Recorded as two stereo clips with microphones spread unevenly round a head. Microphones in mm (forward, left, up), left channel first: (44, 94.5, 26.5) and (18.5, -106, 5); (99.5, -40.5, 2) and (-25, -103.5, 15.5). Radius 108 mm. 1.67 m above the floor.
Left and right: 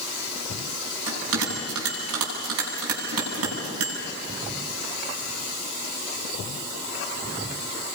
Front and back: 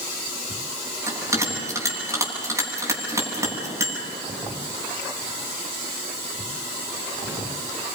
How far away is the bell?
About 10 m.